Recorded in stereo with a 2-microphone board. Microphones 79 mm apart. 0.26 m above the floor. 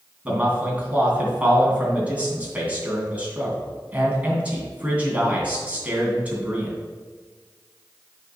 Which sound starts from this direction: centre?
A man speaking, at 0.2 s.